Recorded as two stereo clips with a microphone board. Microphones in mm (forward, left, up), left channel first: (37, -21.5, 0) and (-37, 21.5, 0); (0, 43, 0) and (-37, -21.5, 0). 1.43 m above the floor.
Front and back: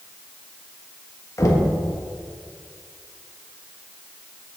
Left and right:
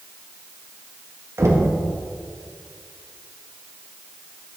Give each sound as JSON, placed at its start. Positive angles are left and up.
{"t": 1.4, "sound": "knocking", "azimuth_deg": -75, "distance_m": 1.3}